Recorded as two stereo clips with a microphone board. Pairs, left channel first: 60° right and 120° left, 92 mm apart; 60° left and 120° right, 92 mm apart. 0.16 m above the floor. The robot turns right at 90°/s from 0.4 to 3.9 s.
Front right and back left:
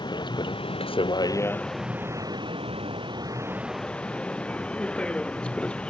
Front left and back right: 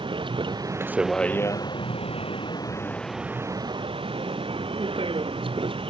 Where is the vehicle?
95° right; by 5.9 s 140° right.